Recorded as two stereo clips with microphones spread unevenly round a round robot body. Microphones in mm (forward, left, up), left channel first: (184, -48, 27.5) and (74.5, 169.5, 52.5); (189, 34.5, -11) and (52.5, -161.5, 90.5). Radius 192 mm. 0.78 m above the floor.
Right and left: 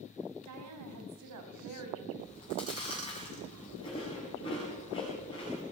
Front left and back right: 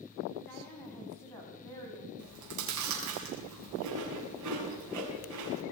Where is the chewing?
140° right, 6 m.